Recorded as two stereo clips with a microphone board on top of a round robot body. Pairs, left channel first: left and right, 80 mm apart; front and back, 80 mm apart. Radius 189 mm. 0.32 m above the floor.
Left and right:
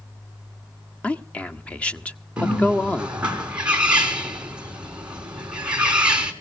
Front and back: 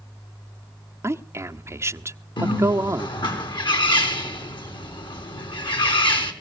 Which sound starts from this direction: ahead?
A bird, at 2.4 s.